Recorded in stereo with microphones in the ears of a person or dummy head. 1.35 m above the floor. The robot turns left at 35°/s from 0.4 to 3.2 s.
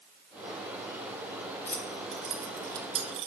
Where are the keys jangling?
10° left (ahead or behind), 0.8 m; by 3.3 s 35° right (ahead or behind), 0.8 m.